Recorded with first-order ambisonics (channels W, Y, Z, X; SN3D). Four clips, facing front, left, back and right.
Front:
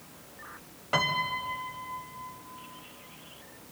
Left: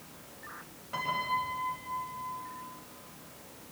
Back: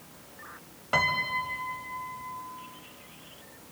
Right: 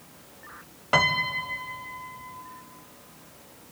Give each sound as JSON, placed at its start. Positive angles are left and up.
{"t": 0.9, "sound": "a piano", "azimuth_deg": -95, "distance_m": 1.3}